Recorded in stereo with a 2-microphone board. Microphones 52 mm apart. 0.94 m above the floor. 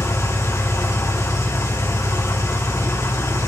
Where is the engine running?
75° left (ahead or behind), 4.5 m.